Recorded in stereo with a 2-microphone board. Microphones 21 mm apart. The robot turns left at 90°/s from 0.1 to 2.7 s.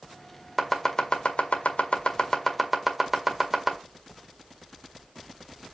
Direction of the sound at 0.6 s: 5° right (ahead or behind).